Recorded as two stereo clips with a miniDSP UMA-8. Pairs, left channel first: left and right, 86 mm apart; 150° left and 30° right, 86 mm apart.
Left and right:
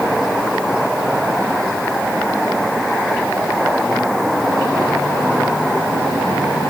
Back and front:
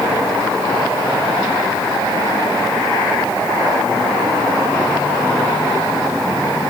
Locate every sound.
Only background noise.